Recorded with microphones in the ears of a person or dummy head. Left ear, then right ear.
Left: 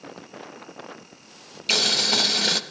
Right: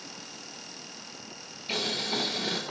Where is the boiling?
55° left (ahead or behind), 0.9 m.